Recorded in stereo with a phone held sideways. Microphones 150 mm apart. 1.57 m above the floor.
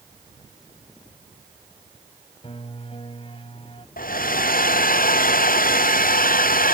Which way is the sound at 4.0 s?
70° left (ahead or behind).